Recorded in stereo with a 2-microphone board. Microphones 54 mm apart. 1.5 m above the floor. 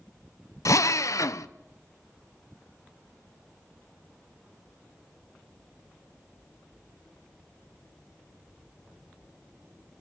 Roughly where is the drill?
Left.